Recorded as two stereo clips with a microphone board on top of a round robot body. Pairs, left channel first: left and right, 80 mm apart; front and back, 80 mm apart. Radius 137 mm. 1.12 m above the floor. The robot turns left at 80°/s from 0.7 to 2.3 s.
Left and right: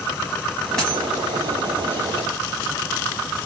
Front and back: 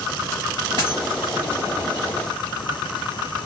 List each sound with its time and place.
0.8 s a dropped coin: 165° left, 1.0 m; by 1.0 s 145° left, 1.0 m